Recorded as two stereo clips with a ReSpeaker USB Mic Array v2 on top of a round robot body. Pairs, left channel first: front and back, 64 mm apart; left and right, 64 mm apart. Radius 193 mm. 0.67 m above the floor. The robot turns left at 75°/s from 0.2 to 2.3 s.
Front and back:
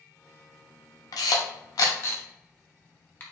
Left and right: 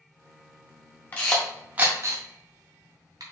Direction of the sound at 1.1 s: 30° left.